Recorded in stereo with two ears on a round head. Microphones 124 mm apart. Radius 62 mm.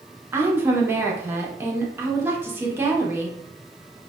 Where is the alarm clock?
I don't hear an alarm clock.